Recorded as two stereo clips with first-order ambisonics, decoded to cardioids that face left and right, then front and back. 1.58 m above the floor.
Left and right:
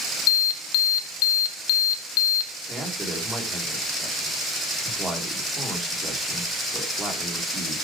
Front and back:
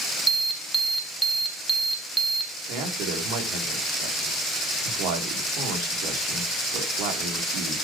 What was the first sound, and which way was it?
An alarm, 100° left.